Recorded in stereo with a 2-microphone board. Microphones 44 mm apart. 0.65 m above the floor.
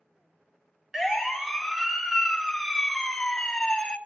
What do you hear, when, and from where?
0.9 s a siren: 10° right (ahead or behind), 2.5 m; by 4.0 s 20° left (ahead or behind), 1.9 m